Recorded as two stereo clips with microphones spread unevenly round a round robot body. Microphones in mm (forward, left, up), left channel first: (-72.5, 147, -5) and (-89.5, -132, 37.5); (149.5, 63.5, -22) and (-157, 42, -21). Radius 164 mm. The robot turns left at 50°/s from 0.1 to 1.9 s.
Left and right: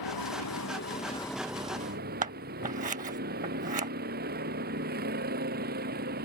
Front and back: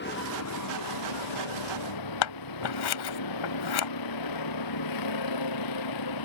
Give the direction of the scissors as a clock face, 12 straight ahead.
1 o'clock.